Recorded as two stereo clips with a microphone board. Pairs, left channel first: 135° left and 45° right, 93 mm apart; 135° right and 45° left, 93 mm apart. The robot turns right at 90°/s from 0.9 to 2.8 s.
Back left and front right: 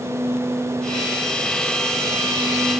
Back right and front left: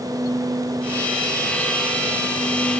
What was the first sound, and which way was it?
Only background noise.